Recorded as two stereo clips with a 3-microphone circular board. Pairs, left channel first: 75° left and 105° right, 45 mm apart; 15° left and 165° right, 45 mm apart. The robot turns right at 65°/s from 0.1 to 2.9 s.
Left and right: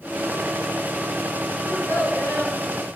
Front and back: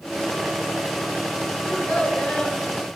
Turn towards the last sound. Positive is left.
turn(degrees=130)